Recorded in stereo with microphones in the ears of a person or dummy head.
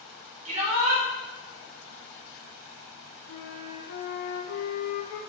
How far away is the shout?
About 1.6 m.